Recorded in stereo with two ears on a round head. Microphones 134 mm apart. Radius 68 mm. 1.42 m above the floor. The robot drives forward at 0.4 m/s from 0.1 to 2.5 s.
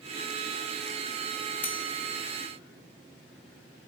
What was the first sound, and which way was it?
Cutlery clinking, 10° left (ahead or behind).